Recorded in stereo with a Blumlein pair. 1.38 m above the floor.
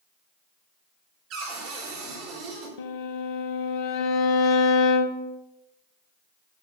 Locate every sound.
1.3 s a cupboard door: 40° right, 4 m
2.8 s a violin: 45° left, 0.8 m